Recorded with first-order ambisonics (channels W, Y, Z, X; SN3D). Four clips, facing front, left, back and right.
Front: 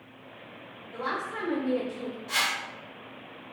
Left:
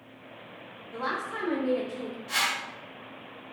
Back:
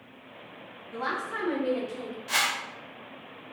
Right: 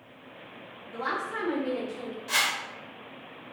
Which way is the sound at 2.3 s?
150° right.